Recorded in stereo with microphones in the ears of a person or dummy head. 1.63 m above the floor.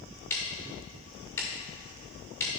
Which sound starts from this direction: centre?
Ticking, at 0.3 s.